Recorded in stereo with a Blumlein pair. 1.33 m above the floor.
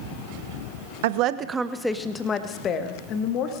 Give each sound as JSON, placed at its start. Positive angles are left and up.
{"t": 1.0, "sound": "a woman speaking", "azimuth_deg": -55, "distance_m": 0.8}